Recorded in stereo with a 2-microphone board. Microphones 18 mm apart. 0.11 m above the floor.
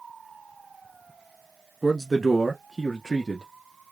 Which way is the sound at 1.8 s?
15° right (ahead or behind).